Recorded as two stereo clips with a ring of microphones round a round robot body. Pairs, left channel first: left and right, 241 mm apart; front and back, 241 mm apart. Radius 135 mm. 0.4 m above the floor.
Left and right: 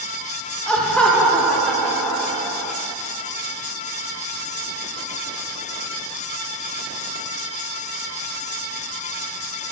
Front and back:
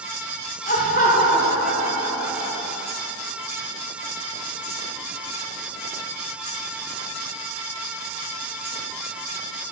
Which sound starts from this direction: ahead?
Laughter, at 0.7 s.